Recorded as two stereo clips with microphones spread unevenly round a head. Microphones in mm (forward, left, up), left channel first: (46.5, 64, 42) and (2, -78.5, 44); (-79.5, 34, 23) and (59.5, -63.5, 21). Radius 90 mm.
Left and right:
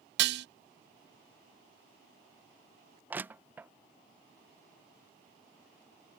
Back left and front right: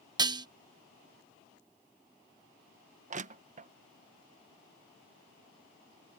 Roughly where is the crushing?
Ahead right.